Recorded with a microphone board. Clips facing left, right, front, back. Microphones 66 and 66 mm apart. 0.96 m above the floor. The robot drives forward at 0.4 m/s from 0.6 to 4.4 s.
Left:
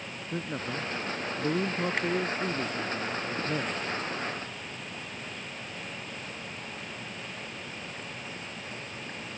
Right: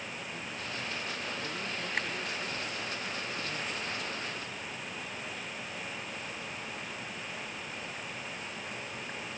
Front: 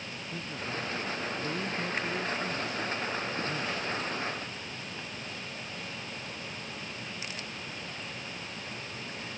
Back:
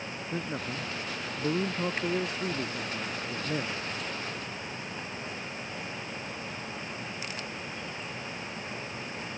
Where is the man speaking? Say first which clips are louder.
Left 10 dB, back 2 dB; 130° left; by 3.8 s 135° left.